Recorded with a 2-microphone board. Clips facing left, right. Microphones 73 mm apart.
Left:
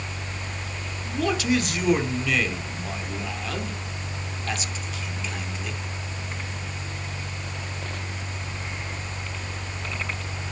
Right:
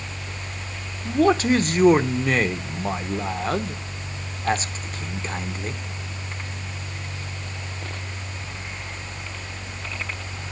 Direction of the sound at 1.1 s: 40° right (ahead or behind).